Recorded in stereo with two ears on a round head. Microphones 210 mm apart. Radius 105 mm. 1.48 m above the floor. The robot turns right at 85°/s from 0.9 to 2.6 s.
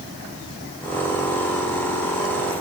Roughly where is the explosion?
No explosion in this recording.